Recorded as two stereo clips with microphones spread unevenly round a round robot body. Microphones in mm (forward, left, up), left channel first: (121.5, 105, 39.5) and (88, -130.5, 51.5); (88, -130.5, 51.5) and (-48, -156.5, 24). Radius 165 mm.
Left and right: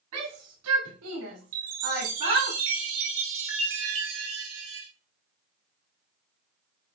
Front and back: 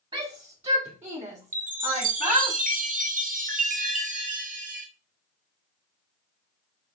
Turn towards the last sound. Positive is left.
turn(degrees=-145)